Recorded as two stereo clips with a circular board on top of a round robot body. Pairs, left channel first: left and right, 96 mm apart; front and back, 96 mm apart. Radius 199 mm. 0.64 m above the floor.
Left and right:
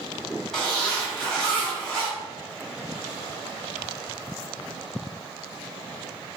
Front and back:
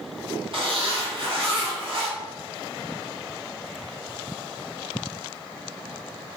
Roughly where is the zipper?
Behind.